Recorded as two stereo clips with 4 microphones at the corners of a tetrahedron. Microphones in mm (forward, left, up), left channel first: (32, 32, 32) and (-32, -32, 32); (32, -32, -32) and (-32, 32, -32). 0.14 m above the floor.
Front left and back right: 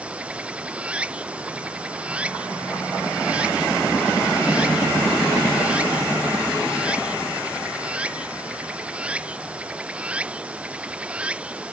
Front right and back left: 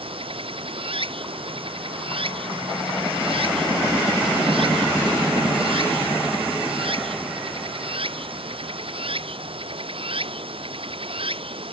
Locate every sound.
0.0 s running water: 150° left